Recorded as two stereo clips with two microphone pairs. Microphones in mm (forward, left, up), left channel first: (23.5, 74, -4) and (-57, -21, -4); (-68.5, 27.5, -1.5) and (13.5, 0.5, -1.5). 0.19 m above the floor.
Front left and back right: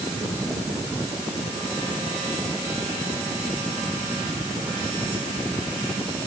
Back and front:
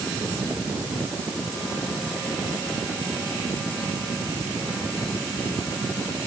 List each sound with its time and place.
Only background noise.